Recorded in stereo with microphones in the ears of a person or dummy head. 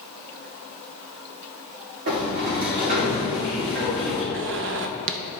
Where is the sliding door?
60° right (ahead or behind), 3.5 m.